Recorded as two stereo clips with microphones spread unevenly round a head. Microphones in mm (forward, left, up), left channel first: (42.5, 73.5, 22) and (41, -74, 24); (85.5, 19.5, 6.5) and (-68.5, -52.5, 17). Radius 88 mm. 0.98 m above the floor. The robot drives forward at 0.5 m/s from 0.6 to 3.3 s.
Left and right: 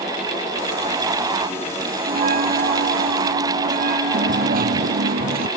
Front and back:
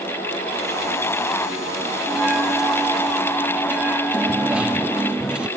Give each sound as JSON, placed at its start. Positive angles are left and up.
{"t": 2.1, "sound": "a bell", "azimuth_deg": -70}
{"t": 4.1, "sound": "a dropped coin", "azimuth_deg": -70}